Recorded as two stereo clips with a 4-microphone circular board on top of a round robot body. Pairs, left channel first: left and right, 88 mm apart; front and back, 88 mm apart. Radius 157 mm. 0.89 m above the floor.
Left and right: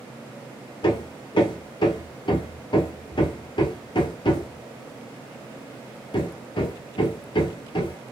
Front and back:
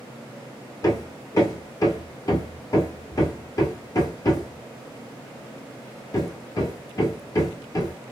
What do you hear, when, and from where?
0.8 s hammering: 55° left, 1.0 m